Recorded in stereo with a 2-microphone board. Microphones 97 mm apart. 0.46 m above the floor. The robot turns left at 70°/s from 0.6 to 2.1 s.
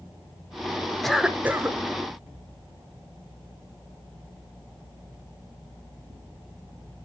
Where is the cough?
5° left, 0.9 m; by 1.8 s 45° right, 0.9 m.